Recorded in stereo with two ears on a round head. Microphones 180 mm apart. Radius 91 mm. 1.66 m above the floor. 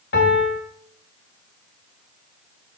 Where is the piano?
60° left (ahead or behind), 3 m.